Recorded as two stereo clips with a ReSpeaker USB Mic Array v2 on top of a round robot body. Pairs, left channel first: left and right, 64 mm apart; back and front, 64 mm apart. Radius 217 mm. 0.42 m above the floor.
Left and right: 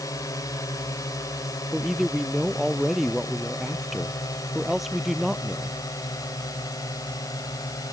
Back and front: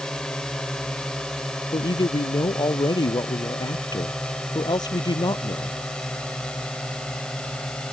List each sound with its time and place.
0.0 s a drone: 100° left; by 7.9 s 105° left
1.7 s a man speaking: 175° right